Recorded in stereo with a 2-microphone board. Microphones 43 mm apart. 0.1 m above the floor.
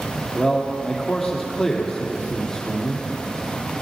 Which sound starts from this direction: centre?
A man speaking, at 0.3 s.